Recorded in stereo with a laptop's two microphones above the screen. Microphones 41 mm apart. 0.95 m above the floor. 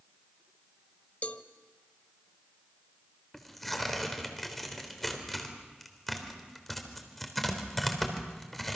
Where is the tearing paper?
5° left (ahead or behind), 3.5 m.